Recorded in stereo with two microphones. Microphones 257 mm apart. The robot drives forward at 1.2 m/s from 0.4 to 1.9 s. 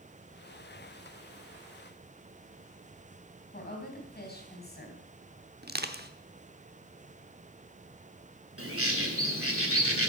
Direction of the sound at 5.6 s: 40° right (ahead or behind).